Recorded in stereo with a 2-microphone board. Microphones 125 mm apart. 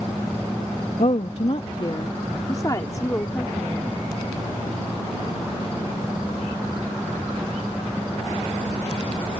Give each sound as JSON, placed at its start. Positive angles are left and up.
{"t": 1.0, "sound": "a woman speaking", "side_deg": 65}